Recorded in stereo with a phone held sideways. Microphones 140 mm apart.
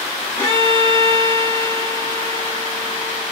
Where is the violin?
20° left (ahead or behind), 0.8 m.